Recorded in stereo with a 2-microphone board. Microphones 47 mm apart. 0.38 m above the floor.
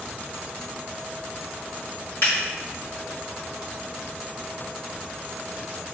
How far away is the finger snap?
About 1.7 m.